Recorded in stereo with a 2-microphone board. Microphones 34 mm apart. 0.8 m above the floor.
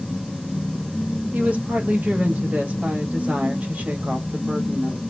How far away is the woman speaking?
About 1.0 m.